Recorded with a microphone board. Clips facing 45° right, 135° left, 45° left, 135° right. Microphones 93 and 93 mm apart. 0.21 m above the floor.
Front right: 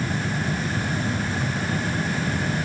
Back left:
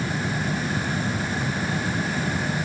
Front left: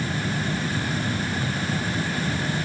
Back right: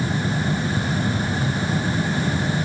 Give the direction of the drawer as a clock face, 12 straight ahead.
No drawer in this recording.